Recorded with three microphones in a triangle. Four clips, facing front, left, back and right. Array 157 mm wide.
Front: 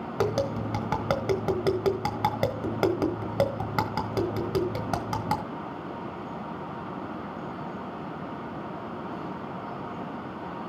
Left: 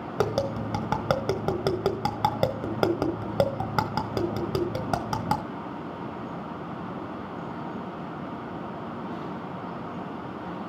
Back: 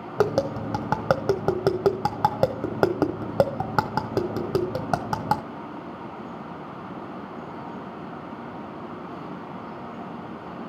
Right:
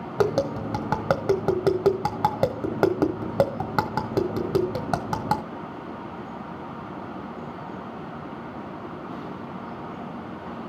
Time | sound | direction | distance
0.2 | tapping | 165° right | 1.3 m